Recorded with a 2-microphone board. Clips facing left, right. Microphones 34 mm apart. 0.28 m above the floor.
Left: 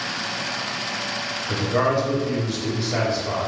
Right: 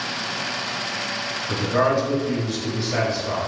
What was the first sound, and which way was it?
A man speaking, centre (ahead or behind).